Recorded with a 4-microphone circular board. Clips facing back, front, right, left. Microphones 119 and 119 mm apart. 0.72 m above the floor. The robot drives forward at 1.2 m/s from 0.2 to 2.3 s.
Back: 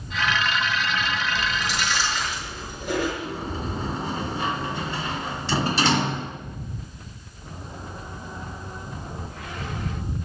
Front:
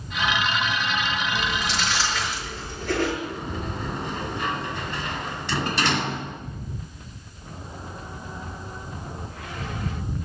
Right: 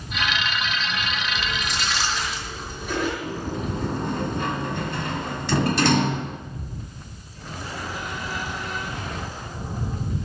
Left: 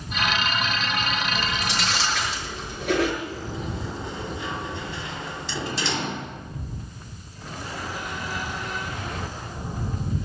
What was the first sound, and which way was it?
Chewing, 95° left.